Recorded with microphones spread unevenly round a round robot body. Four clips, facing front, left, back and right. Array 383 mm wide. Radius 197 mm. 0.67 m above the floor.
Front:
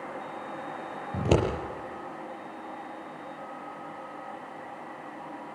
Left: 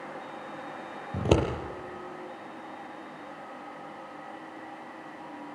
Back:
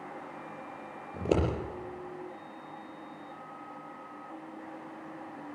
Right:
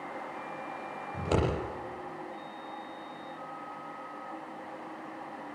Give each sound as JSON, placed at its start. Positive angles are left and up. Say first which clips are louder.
{"t": 1.1, "sound": "scissors", "louder": "left 5 dB, front 3 dB", "azimuth_deg": 45, "distance_m": 7.5}